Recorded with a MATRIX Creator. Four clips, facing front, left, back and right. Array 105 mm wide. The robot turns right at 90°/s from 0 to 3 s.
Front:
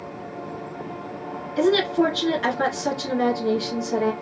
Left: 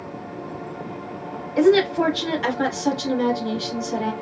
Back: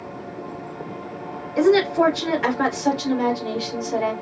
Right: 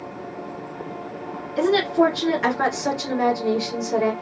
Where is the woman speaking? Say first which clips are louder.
Left 2 dB, back 3 dB; 160° left, 1.2 m; by 4.1 s 70° right, 1.2 m.